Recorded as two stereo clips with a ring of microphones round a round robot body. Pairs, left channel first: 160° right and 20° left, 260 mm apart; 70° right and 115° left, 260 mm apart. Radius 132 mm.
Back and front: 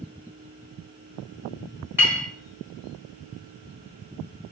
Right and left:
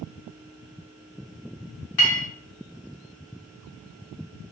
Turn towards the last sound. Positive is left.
turn(degrees=-55)